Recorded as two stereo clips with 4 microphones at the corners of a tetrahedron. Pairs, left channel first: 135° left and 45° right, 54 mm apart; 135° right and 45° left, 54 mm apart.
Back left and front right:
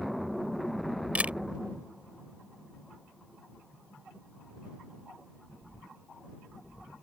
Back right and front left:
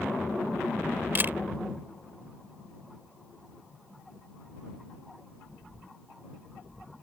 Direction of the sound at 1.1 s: 10° left.